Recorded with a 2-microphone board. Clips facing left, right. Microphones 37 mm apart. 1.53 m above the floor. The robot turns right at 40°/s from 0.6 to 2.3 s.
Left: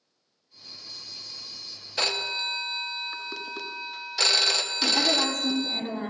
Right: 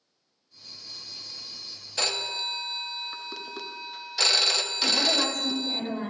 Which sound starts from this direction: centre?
A phone ringing, at 2.0 s.